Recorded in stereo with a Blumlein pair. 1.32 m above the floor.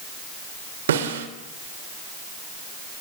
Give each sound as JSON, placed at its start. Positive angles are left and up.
{"t": 0.9, "sound": "a snare drum", "azimuth_deg": -60, "distance_m": 2.5}